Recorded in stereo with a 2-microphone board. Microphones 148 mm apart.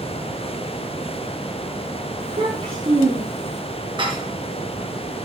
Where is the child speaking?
40° right (ahead or behind), 7.5 m; by 3.6 s 45° right (ahead or behind), 8 m.